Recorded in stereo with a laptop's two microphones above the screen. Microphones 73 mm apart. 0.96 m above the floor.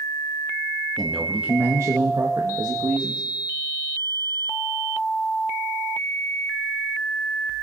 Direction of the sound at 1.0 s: 5° left (ahead or behind).